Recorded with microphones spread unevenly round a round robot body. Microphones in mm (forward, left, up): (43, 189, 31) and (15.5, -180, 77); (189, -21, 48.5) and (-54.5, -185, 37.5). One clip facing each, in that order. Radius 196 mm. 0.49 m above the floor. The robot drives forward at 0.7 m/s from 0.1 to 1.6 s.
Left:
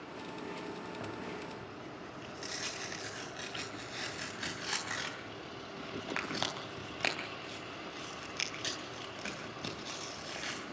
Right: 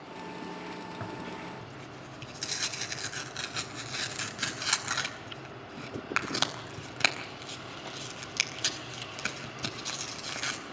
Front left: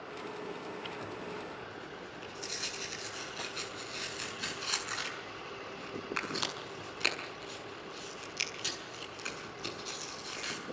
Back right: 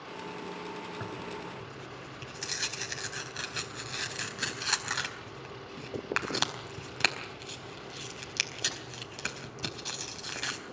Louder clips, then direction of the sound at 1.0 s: Right 2 dB, back right 2 dB; 150° right.